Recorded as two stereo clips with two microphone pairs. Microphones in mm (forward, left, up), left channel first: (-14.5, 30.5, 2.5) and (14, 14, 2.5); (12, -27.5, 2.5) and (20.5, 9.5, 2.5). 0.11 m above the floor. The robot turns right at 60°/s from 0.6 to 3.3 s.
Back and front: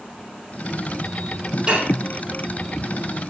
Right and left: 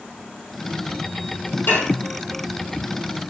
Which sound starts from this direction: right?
Dishes clattering, at 1.7 s.